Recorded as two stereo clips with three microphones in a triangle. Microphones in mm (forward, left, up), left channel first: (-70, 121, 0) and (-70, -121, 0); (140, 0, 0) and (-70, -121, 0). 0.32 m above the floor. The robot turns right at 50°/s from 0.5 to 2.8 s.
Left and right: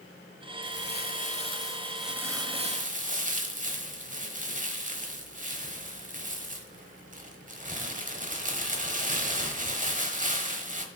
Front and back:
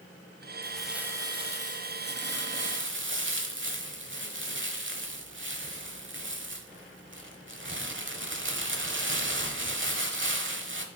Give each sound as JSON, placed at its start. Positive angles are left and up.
{"t": 0.6, "sound": "crumpling", "azimuth_deg": 110, "distance_m": 1.0}